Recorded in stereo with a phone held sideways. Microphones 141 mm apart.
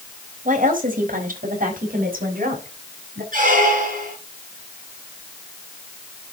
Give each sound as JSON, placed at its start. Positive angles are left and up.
{"t": 0.5, "sound": "a woman speaking", "side_deg": -75, "distance_m": 4.0}
{"t": 3.3, "sound": "a squeak", "side_deg": -70, "distance_m": 5.0}